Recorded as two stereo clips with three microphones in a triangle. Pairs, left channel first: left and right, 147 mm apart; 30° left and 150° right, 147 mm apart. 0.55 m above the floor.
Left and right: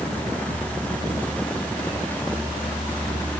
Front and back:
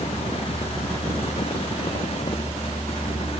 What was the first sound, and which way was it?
Only background noise.